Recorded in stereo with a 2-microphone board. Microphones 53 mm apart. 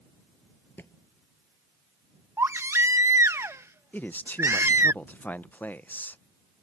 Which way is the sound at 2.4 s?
60° right (ahead or behind).